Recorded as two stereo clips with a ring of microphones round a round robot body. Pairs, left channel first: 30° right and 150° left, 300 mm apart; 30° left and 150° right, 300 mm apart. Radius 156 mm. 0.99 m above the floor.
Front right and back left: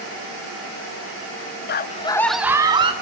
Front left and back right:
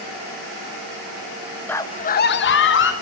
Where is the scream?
50° right, 0.6 m; by 2.9 s 80° left, 1.0 m.